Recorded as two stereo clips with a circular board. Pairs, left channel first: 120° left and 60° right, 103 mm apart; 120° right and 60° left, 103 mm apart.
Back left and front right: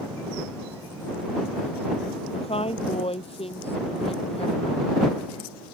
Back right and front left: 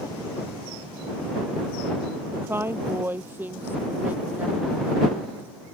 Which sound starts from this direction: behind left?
A woman speaking, at 2.3 s.